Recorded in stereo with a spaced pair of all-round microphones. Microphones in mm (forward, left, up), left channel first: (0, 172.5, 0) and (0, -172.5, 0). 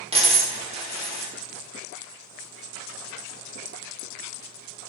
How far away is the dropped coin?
About 0.7 m.